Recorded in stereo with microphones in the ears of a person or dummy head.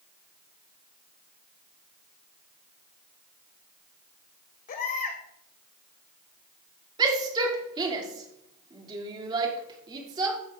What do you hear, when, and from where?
4.7 s a baby crying: 45° left (ahead or behind), 1.6 m
7.0 s a shout: 25° right (ahead or behind), 2.5 m